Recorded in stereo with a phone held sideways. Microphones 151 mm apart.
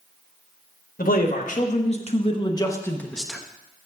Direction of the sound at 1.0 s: 65° left (ahead or behind).